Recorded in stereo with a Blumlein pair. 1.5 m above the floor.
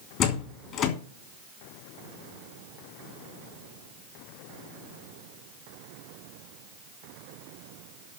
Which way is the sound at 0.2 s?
35° left.